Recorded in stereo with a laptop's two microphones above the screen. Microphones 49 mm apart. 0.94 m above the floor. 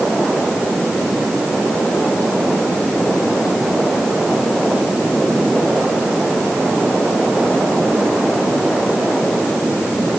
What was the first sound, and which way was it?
Only background noise.